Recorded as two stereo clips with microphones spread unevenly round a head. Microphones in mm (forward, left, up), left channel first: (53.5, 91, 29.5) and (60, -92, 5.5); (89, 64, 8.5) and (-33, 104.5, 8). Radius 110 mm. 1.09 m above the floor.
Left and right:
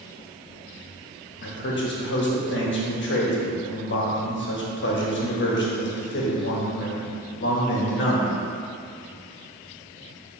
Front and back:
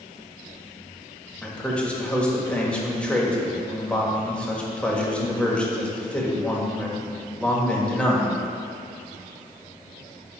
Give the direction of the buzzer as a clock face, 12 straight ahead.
No buzzer in this recording.